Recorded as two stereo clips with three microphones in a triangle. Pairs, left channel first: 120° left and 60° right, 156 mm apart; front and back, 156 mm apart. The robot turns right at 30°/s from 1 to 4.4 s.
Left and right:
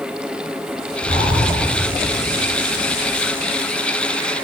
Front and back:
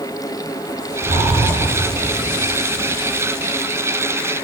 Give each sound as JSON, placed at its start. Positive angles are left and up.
{"t": 1.0, "sound": "breathing", "azimuth_deg": 135, "distance_m": 3.5}